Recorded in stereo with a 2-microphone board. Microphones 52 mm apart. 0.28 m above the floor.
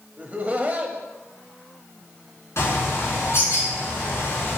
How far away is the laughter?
About 1.0 m.